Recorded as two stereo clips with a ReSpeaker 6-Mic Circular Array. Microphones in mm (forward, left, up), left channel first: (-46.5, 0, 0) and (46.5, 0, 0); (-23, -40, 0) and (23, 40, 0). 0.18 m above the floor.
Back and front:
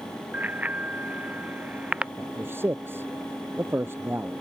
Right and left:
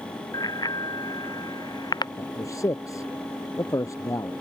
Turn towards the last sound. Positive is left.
turn(degrees=-65)